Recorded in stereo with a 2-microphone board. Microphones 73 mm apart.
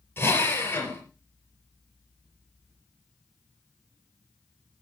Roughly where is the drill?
Left.